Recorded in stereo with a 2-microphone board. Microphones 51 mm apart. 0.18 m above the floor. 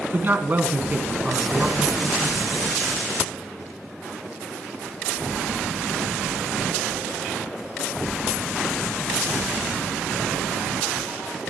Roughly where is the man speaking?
Right.